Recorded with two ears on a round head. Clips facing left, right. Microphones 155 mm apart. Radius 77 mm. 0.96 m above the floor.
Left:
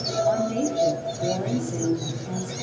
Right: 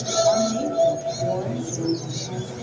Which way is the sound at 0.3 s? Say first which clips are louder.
Right 2 dB; 30° left (ahead or behind).